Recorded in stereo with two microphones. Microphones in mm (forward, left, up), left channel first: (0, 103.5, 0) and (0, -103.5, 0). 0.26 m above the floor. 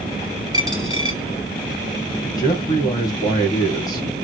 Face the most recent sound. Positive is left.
turn(degrees=15)  # may be behind; listen again after turning